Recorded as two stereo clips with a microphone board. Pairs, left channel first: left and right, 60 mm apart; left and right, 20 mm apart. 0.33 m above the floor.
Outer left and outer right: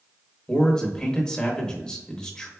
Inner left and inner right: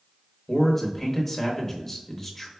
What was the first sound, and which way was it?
A man speaking, 15° left (ahead or behind).